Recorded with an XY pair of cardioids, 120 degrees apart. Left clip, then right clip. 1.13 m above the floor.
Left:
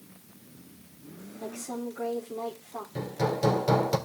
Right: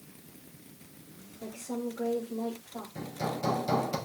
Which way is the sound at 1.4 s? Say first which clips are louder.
Left 1 dB; 70° left.